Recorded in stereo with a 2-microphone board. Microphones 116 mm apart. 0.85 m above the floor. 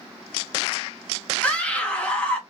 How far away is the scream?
About 0.8 m.